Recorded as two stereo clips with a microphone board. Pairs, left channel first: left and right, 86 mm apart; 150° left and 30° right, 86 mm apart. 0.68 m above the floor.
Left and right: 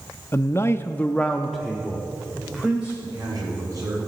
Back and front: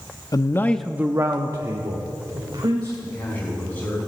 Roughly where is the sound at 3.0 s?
Behind right.